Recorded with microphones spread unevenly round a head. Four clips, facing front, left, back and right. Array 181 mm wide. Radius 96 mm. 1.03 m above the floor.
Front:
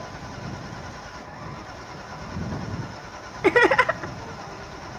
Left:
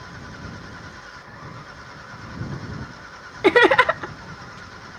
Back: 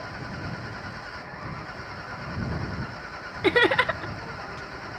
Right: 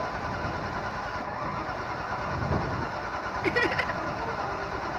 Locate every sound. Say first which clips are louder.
0.0 s an engine running: right 8 dB, even; 85° right
3.4 s laughter: left 14 dB, front 4 dB; 75° left